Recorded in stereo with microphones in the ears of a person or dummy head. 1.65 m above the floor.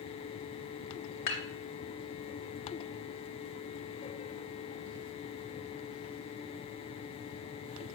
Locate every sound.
1.3 s dishes clattering: 35° left (ahead or behind), 0.8 m